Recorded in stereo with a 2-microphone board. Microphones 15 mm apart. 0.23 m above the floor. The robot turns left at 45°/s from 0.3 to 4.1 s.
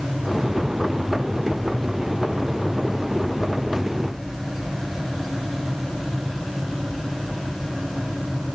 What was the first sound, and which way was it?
Only background noise.